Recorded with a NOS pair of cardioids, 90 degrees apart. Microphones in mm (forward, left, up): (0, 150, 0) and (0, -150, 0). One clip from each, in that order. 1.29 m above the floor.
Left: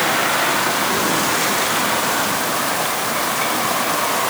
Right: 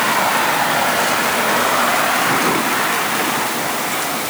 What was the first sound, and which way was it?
Only background noise.